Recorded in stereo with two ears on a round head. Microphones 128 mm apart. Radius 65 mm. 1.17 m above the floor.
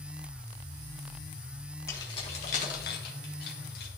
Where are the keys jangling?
20° left (ahead or behind), 1.4 m; by 3.9 s 85° left, 2.5 m.